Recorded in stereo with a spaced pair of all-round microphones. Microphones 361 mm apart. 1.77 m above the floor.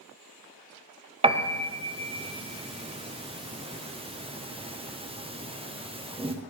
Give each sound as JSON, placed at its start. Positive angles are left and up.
{"t": 1.2, "sound": "a piano", "side_deg": -15, "distance_m": 0.7}